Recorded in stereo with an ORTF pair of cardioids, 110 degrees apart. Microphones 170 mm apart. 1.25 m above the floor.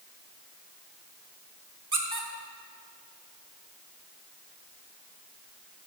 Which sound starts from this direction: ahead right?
A squeak, at 1.9 s.